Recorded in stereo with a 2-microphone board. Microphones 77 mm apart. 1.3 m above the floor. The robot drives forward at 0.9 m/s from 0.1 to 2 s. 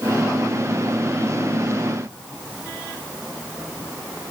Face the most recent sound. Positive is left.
No sound to turn to.